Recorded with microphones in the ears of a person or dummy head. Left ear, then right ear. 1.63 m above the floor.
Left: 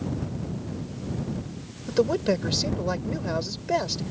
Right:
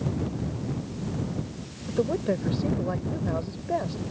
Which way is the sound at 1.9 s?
90° left.